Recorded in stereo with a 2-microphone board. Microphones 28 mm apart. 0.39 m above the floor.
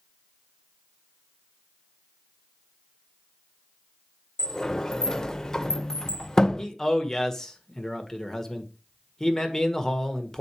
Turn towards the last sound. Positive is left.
turn(degrees=20)  # may be behind; listen again after turning